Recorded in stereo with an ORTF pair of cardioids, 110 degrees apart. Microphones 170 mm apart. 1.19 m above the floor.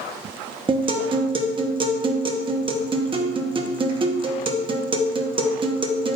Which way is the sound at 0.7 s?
30° right.